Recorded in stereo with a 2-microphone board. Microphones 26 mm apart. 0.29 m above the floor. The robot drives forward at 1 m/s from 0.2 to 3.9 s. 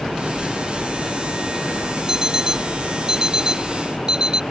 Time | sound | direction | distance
2.1 | an alarm clock | 15° right (ahead or behind) | ?